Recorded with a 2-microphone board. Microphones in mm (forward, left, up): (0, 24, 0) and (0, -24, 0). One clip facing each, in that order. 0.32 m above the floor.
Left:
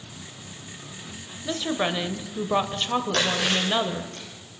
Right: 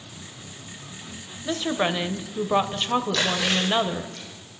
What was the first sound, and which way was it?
A woman speaking, 10° right (ahead or behind).